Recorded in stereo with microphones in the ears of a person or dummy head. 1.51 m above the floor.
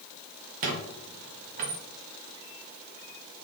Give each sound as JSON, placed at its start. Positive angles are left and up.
{"t": 0.6, "sound": "a squeak", "side_deg": -45, "distance_m": 0.7}